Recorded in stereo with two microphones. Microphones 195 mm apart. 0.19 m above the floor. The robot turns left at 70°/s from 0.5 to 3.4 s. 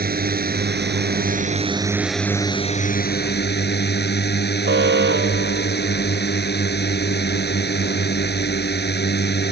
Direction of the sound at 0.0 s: 65° right.